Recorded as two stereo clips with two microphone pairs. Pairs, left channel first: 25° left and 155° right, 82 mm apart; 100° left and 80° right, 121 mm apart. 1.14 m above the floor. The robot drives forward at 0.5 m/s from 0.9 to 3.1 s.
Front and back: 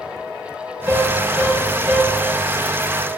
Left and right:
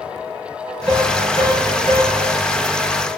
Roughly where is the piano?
Right.